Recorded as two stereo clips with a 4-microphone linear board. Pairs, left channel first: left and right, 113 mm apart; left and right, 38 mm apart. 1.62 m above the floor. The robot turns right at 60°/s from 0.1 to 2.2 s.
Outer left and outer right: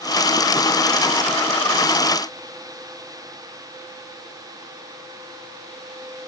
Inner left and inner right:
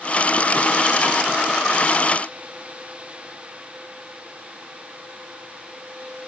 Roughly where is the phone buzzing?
I don't hear a phone buzzing.